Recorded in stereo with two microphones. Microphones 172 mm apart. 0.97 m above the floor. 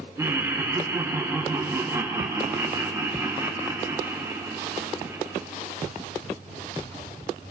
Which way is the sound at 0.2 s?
15° right (ahead or behind).